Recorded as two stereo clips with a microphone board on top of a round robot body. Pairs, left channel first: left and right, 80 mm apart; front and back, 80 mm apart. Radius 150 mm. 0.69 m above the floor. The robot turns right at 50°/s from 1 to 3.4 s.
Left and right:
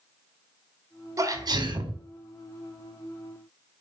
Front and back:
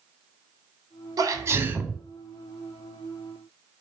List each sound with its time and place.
1.2 s a sneeze: 135° right, 3 m; by 2.0 s 95° right, 3 m